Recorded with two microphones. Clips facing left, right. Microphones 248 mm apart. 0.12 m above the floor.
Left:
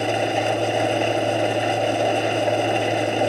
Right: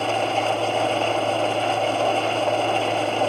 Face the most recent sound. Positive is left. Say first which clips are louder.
# left 2 dB
turn(degrees=15)  # may be behind; listen again after turning